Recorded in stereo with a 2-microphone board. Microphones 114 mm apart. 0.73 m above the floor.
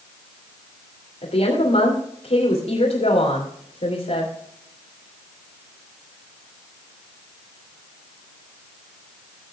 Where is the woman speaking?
70° left (ahead or behind), 2.5 m.